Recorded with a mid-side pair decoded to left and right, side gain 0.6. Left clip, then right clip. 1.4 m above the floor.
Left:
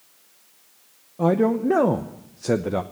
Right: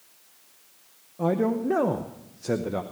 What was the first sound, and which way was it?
A man speaking, 25° left.